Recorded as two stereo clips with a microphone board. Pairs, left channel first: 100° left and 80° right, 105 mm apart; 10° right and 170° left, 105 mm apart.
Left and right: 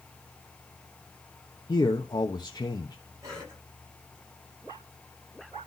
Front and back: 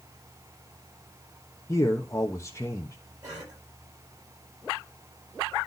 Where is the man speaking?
50° left, 1.0 m.